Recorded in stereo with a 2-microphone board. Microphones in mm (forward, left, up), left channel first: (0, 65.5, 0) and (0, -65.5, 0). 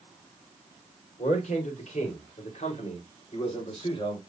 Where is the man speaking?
65° left (ahead or behind), 3 m; by 4.2 s 40° left (ahead or behind), 3.5 m.